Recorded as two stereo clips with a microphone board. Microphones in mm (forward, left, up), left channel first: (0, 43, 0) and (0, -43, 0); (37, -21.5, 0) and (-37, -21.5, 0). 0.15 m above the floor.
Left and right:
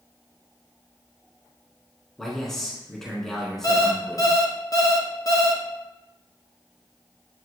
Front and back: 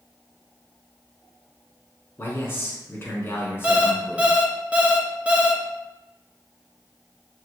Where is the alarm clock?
115° left, 0.7 m.